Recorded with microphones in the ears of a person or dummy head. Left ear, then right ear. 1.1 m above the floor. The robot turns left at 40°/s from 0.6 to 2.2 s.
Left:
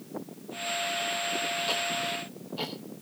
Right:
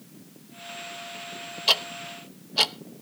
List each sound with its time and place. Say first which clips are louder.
1.7 s ticking: right 4 dB; 40° right (ahead or behind), 0.8 m; by 2.8 s 60° right (ahead or behind), 0.8 m